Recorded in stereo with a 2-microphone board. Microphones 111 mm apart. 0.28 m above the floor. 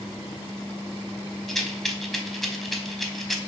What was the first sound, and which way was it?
A rattle, centre (ahead or behind).